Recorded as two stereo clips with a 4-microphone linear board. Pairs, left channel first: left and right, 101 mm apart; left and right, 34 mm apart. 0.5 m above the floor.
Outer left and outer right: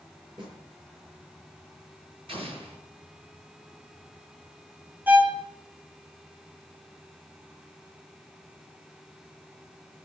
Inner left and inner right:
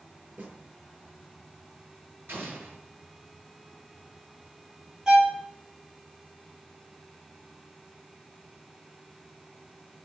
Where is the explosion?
65° right (ahead or behind), 7.5 m.